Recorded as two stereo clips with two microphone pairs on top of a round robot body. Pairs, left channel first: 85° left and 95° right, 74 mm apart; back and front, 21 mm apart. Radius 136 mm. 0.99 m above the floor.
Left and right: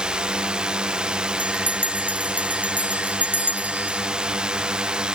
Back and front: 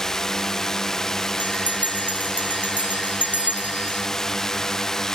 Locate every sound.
0.0 s a drone: 160° right
1.4 s a bell: 25° right